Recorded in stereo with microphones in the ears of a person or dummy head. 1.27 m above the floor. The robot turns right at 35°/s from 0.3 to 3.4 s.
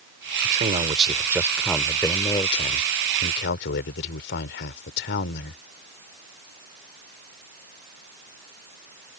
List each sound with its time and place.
0.4 s a man speaking: 45° right; by 5.6 s 60° left